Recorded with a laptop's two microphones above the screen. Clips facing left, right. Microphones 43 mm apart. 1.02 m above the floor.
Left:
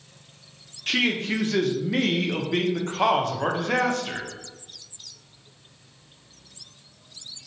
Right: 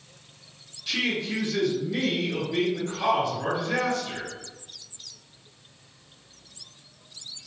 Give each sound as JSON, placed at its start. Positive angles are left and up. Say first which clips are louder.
{"t": 0.9, "sound": "a man speaking", "louder": "left 4 dB", "side_deg": 55, "distance_m": 0.6}